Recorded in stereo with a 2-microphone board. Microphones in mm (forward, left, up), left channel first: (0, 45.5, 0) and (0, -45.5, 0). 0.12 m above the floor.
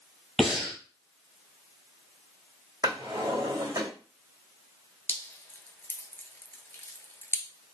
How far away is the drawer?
About 2 m.